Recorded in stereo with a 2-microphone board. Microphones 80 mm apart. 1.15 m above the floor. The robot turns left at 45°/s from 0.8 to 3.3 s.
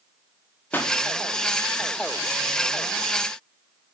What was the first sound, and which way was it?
A pop, 20° left (ahead or behind).